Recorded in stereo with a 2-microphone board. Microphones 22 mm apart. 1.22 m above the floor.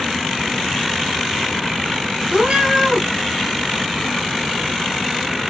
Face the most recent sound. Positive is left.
turn(degrees=-60)  # may be behind; listen again after turning